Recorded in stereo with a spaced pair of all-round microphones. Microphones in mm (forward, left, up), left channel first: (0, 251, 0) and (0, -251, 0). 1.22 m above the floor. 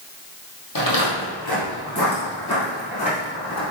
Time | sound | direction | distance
0.8 | footsteps | 45° left (ahead or behind) | 1.8 m